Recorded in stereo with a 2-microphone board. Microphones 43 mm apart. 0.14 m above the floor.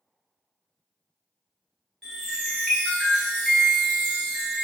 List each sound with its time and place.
2.0 s a chime: 5° left (ahead or behind), 1.1 m